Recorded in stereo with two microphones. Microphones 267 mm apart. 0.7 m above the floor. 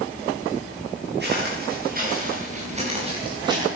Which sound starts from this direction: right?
Footsteps, at 1.2 s.